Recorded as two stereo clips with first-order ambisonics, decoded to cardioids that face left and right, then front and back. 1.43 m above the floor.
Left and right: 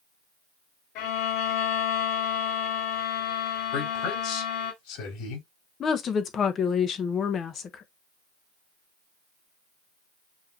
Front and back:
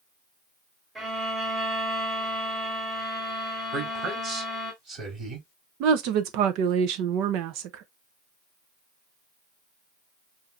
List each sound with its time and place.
0.9 s a violin: 105° left, 4 m
3.7 s a man speaking: 120° left, 4.5 m
5.8 s a woman speaking: 155° left, 0.9 m